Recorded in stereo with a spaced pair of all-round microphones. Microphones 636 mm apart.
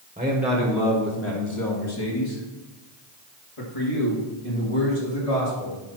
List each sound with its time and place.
0.2 s a man speaking: 10° right (ahead or behind), 1.4 m; by 5.8 s 70° left (ahead or behind), 4 m